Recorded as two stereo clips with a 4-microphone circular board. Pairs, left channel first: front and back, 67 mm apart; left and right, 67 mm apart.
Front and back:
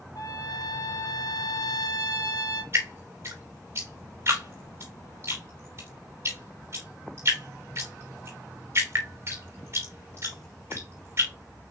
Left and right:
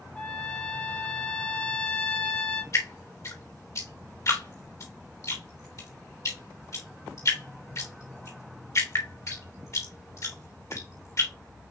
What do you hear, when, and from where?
0.1 s a trumpet: 15° left, 0.9 m
2.7 s dripping: 135° left, 3 m